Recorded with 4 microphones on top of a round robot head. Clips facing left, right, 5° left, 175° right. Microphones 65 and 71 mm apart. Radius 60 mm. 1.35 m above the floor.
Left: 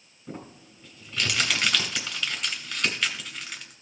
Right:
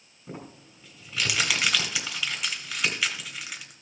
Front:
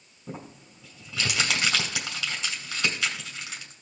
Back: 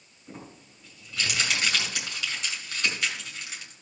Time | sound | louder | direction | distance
0.3 | crumpling | left 1 dB, front 4 dB | 5° right | 2.5 m